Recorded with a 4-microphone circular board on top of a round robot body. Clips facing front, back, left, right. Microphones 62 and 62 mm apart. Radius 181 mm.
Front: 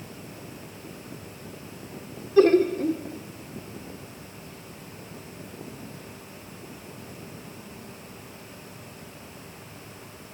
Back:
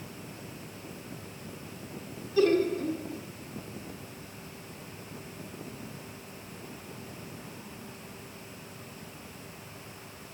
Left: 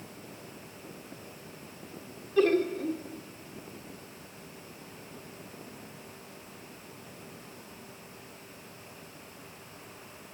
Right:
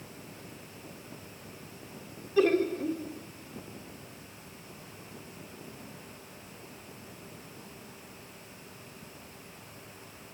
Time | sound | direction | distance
2.4 | laughter | 5° right | 1.1 m